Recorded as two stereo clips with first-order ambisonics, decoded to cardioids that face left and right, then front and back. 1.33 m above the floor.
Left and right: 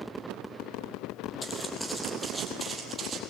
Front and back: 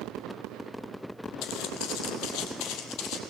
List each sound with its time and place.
1.4 s footsteps: 15° left, 2.5 m; by 3.2 s 25° right, 2.5 m